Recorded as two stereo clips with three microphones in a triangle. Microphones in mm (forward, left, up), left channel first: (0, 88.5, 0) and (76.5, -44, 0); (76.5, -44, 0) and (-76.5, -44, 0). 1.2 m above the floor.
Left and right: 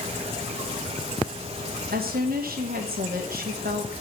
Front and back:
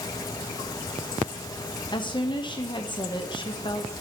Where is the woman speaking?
60° right, 1.1 m.